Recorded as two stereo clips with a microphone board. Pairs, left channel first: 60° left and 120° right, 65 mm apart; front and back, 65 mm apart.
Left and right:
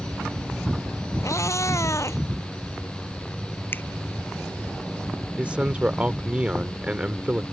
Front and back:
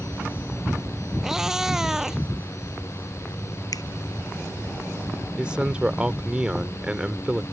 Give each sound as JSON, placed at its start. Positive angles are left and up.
{"t": 1.2, "sound": "a cat meowing", "azimuth_deg": 100}
{"t": 3.7, "sound": "a finger snap", "azimuth_deg": 5}
{"t": 5.4, "sound": "a man speaking", "azimuth_deg": -140}